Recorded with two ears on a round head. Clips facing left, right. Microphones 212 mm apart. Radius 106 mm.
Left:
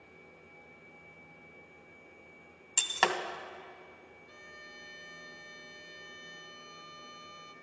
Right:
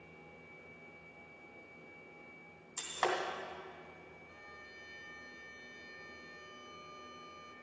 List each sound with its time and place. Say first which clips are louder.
2.8 s breaking glass: left 3 dB; 75° left (ahead or behind), 0.9 m
4.3 s a violin: left 2 dB; 60° left (ahead or behind), 0.6 m